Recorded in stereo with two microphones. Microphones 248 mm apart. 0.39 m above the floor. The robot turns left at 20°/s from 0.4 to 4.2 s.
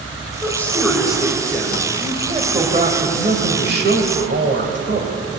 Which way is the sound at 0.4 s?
10° left.